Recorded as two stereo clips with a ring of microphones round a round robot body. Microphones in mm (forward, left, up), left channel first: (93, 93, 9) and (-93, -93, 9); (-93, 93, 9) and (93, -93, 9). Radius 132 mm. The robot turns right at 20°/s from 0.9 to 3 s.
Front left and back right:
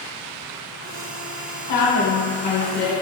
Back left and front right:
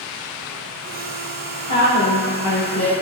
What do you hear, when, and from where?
1.7 s a woman speaking: 15° left, 1.9 m; by 2.9 s 40° left, 1.9 m